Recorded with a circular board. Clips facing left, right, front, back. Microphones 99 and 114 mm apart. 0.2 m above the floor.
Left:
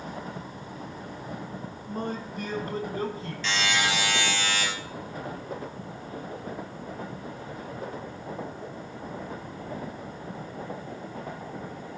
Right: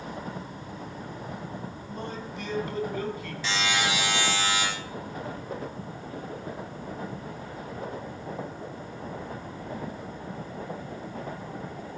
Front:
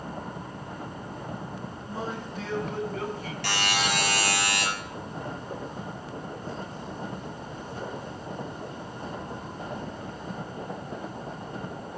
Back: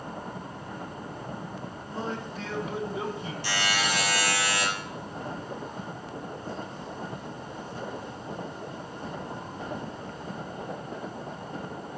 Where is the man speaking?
70° left, 2.5 m; by 3.3 s 130° left, 2 m.